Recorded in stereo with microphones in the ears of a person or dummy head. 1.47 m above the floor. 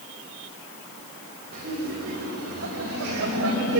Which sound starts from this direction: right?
Laughter, at 1.5 s.